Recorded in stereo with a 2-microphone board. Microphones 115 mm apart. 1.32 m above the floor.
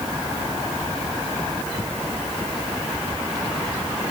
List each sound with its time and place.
Only background noise.